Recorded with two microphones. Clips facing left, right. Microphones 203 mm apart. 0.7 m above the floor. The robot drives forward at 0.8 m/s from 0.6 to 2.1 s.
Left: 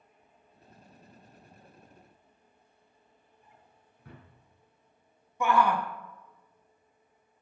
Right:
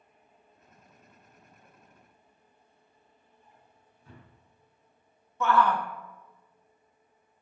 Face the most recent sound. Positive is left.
turn(degrees=15)  # may be behind; listen again after turning